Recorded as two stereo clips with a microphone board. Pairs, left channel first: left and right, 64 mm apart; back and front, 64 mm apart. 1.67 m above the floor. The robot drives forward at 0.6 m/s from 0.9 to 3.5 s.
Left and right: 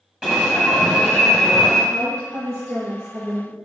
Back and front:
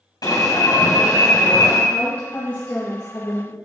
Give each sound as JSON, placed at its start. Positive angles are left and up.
{"t": 0.2, "sound": "an alarm", "azimuth_deg": -165, "distance_m": 2.0}
{"t": 1.9, "sound": "a woman speaking", "azimuth_deg": -105, "distance_m": 1.5}